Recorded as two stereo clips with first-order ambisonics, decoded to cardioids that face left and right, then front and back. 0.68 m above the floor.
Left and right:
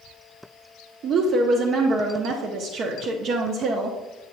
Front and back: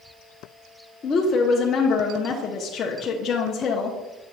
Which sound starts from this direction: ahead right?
A woman speaking, at 1.0 s.